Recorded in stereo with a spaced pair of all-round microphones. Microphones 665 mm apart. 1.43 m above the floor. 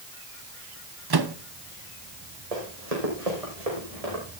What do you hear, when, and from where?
1.1 s a microwave: 35° right (ahead or behind), 0.8 m
2.5 s running footsteps: 65° right (ahead or behind), 4 m; by 4.2 s 55° right (ahead or behind), 6 m